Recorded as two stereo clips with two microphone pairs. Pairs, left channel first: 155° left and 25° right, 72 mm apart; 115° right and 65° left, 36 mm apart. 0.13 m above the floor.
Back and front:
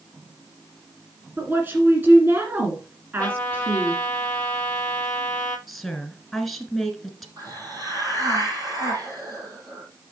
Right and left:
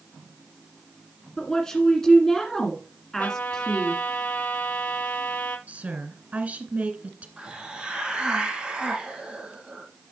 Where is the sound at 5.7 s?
65° left, 1.4 m.